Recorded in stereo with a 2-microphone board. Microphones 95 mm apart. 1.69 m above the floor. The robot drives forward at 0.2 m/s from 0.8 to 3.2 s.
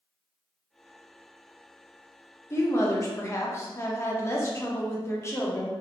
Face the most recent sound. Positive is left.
turn(degrees=30)  # may be behind; listen again after turning